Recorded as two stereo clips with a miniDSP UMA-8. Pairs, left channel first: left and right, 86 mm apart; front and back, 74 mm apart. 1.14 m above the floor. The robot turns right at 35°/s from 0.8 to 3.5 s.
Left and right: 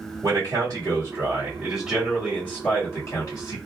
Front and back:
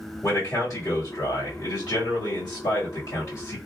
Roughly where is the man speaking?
Ahead right.